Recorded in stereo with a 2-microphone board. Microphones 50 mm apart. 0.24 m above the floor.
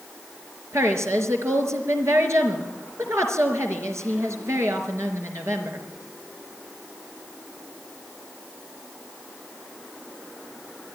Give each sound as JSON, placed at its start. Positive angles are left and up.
{"t": 0.7, "sound": "a woman speaking", "side_deg": -75, "distance_m": 4.0}